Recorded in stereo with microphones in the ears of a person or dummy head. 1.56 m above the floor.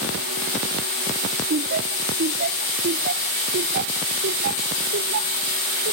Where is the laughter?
45° right (ahead or behind); by 5.9 s 65° right (ahead or behind).